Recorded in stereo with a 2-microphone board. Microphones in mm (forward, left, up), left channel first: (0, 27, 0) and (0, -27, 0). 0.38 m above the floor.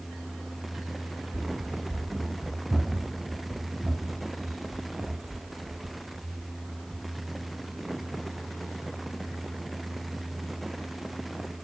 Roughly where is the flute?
I don't hear a flute.